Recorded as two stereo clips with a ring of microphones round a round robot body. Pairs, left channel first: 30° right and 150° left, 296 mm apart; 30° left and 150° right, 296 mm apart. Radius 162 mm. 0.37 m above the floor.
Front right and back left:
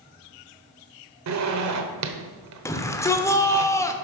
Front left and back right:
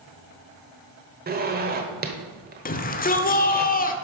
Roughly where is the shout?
Ahead left.